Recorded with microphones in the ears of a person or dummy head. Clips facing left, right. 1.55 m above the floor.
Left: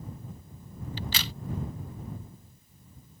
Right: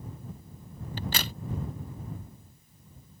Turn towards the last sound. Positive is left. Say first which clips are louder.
# right 3 dB
turn(degrees=-45)  # may be behind; listen again after turning